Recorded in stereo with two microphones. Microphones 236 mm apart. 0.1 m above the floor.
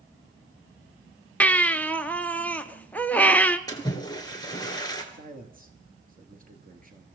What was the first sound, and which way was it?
A baby crying, 5° left (ahead or behind).